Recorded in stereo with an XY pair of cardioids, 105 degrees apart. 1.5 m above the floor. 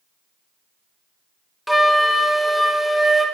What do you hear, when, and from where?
1.7 s a flute: straight ahead, 0.8 m